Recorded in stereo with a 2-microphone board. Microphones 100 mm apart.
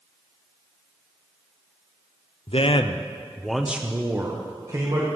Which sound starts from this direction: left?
A man speaking, at 2.5 s.